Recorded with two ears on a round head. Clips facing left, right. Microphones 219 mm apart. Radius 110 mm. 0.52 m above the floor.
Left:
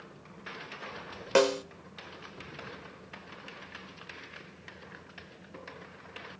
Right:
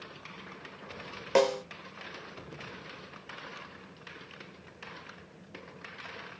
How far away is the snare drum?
About 1.1 m.